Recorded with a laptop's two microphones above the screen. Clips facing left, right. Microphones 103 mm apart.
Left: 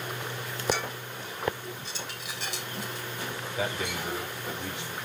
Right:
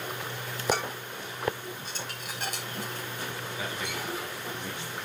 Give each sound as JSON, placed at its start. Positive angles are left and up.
{"t": 0.7, "sound": "dishes clattering", "side_deg": -50, "distance_m": 4.0}
{"t": 3.6, "sound": "a man speaking", "side_deg": 80, "distance_m": 4.0}